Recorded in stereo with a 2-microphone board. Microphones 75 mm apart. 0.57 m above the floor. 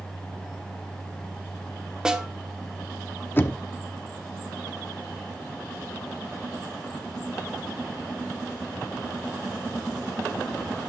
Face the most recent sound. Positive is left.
turn(degrees=25)  # may be behind; listen again after turning